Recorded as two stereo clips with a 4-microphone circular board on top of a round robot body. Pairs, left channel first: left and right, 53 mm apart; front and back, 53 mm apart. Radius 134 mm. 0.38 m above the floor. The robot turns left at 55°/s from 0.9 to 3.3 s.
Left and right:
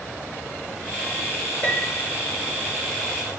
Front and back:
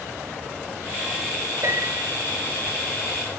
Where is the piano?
155° left, 8.5 m; by 2.1 s 125° left, 8.5 m.